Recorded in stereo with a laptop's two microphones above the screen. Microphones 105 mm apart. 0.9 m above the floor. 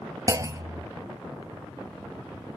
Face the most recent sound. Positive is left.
turn(degrees=-30)  # may be behind; listen again after turning